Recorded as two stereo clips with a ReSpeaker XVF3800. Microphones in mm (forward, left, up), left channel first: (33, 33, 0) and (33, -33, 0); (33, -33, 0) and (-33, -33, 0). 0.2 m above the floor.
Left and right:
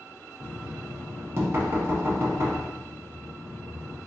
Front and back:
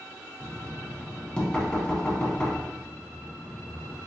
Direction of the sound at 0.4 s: 70° right.